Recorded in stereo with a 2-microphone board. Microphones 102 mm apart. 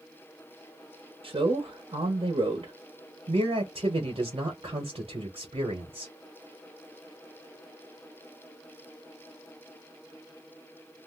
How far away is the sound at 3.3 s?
About 1.1 m.